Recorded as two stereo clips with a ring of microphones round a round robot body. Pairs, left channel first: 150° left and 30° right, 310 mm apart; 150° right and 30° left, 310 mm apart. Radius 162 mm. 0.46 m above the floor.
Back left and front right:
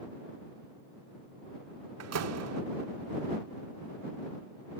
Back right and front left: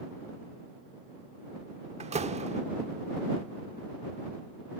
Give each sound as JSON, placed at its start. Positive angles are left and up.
{"t": 2.0, "sound": "a door slam", "azimuth_deg": -35}